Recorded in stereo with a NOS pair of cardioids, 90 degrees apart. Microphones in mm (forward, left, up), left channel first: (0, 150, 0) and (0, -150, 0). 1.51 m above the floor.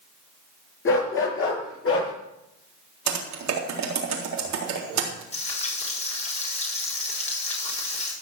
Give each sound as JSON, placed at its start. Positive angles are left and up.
{"t": 0.8, "sound": "a dog barking", "azimuth_deg": 45, "distance_m": 7.0}
{"t": 3.1, "sound": "typing on a keyboard", "azimuth_deg": -65, "distance_m": 3.5}
{"t": 5.3, "sound": "frying", "azimuth_deg": 20, "distance_m": 5.5}